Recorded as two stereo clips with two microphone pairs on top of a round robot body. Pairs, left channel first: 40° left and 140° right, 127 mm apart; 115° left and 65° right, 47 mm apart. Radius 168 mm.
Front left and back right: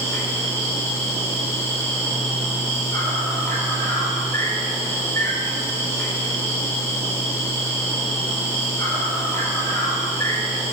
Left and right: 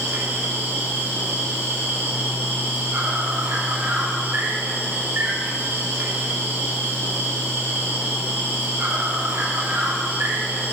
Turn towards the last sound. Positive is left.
turn(degrees=-30)